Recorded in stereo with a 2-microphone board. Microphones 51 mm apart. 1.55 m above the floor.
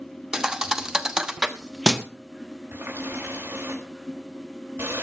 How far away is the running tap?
About 4.5 m.